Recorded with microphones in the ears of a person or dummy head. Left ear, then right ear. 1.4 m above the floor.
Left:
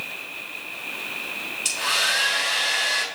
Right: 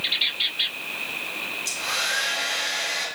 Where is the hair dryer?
55° left (ahead or behind), 3.5 m.